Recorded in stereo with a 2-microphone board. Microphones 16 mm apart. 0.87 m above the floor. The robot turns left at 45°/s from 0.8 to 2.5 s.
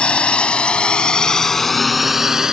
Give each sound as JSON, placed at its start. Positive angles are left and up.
{"t": 0.0, "sound": "a drone", "side_deg": 80}